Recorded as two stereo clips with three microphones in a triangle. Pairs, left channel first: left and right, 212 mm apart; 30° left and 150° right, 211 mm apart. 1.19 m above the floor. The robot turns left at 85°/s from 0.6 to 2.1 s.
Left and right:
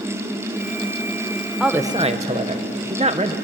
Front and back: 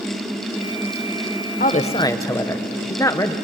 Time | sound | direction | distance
1.6 | a woman speaking | straight ahead | 0.8 m